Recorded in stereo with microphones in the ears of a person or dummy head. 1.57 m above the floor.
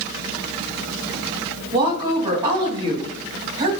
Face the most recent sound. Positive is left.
turn(degrees=-25)  # may be behind; listen again after turning